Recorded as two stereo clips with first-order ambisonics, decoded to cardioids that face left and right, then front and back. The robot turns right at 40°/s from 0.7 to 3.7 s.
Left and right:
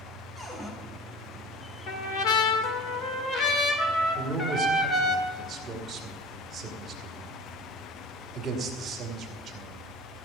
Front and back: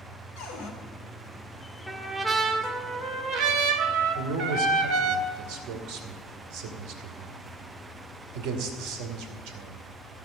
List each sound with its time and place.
0.4 s a cupboard door: 5° left, 2.5 m; by 0.7 s 10° left, 2.5 m
1.9 s a trumpet: 80° left, 1.5 m; by 5.2 s 155° left, 1.5 m
4.2 s a man speaking: 160° right, 2.5 m